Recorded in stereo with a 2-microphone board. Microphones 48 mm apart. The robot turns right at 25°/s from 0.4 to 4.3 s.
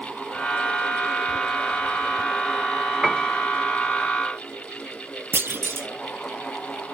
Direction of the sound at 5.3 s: 65° right (ahead or behind).